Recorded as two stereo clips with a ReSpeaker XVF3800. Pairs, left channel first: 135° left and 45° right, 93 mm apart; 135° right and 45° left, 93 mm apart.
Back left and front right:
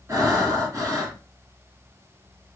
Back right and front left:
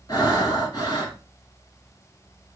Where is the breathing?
95° right, 1.4 m.